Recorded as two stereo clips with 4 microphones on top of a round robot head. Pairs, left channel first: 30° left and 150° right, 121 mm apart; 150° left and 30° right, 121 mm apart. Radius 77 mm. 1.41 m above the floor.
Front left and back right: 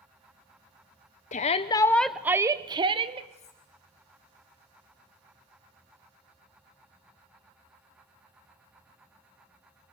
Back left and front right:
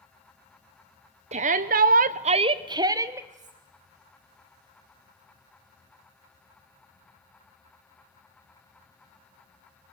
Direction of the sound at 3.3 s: 5° right.